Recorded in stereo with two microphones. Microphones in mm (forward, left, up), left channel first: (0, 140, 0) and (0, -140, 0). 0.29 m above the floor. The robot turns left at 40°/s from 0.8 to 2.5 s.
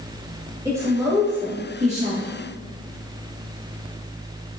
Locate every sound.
0.7 s a woman speaking: 10° right (ahead or behind), 1.1 m; by 2.3 s 25° right (ahead or behind), 1.1 m